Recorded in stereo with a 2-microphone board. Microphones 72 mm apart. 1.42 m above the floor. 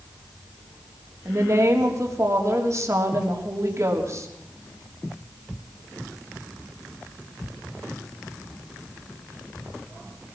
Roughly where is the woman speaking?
Right.